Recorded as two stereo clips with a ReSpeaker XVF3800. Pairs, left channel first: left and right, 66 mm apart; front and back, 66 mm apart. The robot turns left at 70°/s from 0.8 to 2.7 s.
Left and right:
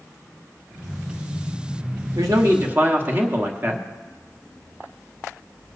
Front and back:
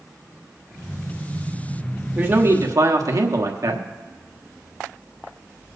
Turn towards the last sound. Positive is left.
turn(degrees=-150)